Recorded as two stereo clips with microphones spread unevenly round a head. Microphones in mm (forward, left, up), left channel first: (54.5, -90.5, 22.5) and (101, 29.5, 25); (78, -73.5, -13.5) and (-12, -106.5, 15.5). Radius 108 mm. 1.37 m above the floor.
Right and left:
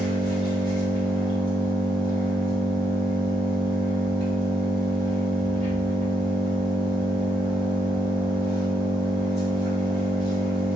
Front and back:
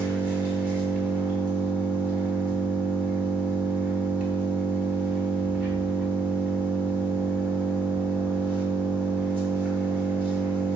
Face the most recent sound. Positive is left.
turn(degrees=-140)